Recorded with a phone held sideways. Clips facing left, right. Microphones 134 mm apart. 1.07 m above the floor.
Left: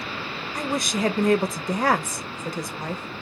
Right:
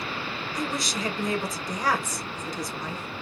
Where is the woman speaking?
60° left (ahead or behind), 0.6 m.